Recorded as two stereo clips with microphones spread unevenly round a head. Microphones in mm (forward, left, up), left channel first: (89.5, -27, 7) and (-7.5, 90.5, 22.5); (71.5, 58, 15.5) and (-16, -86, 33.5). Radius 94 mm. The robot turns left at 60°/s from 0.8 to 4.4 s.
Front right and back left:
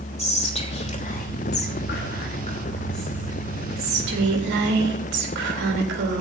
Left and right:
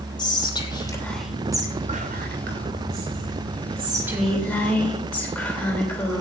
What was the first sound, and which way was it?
Whispering, 5° right.